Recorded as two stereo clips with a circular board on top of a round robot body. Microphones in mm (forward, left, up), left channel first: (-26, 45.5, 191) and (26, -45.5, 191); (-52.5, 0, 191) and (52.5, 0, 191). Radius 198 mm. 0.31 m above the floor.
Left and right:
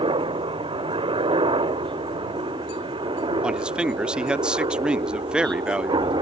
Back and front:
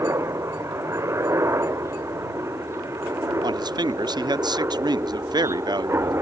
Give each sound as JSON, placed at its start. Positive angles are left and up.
{"t": 0.0, "sound": "a helicopter", "azimuth_deg": -55}
{"t": 3.4, "sound": "a man speaking", "azimuth_deg": 20}